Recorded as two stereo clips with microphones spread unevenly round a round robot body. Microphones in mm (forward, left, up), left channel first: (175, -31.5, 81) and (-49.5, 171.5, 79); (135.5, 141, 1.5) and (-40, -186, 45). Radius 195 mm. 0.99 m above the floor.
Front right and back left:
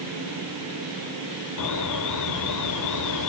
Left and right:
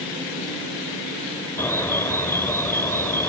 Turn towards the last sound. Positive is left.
turn(degrees=-25)